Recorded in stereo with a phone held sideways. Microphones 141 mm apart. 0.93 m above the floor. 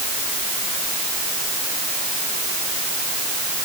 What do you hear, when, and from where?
Only background noise.